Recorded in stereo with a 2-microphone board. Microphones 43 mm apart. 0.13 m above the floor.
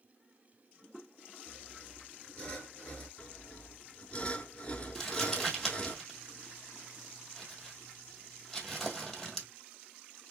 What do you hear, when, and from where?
1.5 s sawing: 15° left (ahead or behind), 1.7 m
3.2 s sawing: 30° left (ahead or behind), 0.9 m
5.0 s crumpling: 5° left (ahead or behind), 1.5 m